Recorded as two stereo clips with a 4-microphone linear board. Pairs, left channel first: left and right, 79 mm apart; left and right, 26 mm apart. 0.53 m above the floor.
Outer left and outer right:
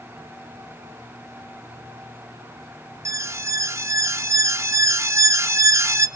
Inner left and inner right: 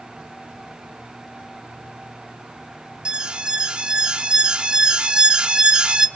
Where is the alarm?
40° right (ahead or behind), 0.6 m.